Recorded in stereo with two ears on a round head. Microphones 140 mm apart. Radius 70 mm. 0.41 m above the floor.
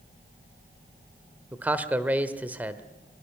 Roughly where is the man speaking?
Centre.